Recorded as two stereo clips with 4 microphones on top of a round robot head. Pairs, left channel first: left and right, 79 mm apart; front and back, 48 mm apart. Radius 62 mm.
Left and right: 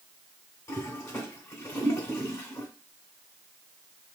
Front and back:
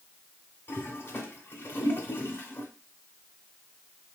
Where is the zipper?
I don't hear a zipper.